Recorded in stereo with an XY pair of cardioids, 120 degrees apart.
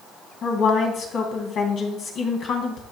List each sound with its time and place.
0.4 s a woman speaking: 60° left, 3 m